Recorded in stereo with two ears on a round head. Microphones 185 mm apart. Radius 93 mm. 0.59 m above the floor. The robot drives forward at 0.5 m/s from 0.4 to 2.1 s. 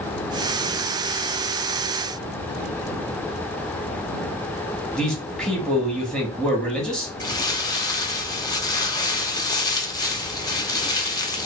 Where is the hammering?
No hammering in this recording.